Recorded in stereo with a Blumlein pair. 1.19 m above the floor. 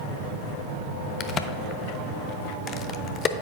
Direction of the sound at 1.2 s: 20° left.